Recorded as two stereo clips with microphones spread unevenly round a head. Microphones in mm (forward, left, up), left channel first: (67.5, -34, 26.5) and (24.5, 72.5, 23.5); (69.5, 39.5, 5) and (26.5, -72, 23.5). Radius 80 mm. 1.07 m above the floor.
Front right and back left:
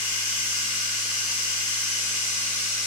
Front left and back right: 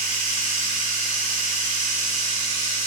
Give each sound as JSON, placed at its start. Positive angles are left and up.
{"t": 0.0, "sound": "running water", "azimuth_deg": -135, "distance_m": 1.9}